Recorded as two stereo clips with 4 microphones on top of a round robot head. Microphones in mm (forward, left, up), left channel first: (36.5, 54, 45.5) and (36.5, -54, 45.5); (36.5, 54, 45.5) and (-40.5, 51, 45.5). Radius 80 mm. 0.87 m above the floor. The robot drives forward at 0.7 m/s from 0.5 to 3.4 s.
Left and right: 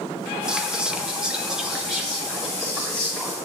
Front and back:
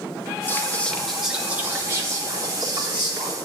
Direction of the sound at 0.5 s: 15° right.